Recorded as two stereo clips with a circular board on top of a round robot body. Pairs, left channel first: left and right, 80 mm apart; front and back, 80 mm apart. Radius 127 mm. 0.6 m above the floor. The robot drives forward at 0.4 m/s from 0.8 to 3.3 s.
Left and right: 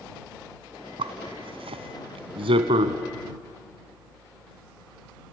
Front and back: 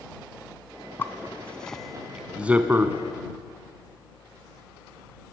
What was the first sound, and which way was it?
A zipper, 65° right.